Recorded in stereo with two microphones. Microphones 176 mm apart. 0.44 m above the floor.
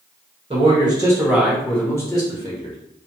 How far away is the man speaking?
About 1.1 m.